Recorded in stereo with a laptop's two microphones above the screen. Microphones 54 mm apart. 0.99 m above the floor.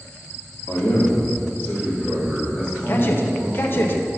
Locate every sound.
0.7 s a man speaking: 65° left (ahead or behind), 1.8 m; by 3.9 s 10° left (ahead or behind), 3 m
2.9 s a man speaking: 40° left (ahead or behind), 0.5 m